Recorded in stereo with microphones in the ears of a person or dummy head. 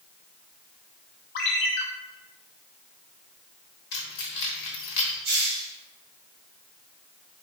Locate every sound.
1.4 s a ringtone: 45° left (ahead or behind), 0.6 m
3.9 s keys jangling: 55° left (ahead or behind), 1.0 m
5.2 s a hiss: 55° right (ahead or behind), 1.0 m